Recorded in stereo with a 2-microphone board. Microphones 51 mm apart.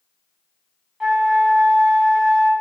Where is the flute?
5° right (ahead or behind), 1.9 m.